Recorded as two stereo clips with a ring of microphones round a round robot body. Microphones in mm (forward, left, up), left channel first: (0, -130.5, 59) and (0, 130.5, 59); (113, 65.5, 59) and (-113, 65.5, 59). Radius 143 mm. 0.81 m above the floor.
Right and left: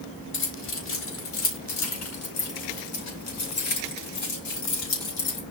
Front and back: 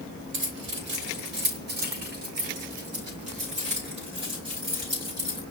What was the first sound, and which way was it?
Keys jangling, 135° right.